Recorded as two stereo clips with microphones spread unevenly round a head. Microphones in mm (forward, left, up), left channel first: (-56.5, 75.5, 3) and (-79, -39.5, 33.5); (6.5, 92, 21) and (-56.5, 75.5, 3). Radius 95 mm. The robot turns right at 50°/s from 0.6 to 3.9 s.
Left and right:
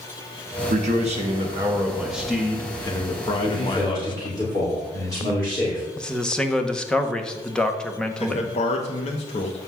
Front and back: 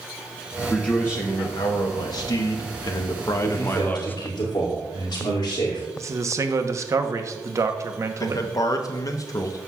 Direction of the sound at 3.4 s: 10° right.